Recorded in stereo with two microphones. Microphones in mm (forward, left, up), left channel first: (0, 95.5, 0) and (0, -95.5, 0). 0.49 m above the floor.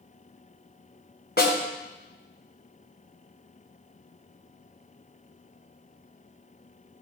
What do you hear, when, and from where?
1.4 s a snare drum: 65° left (ahead or behind), 2.5 m